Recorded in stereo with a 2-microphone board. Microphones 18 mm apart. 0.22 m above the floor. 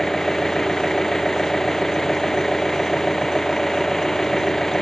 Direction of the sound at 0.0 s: 25° left (ahead or behind).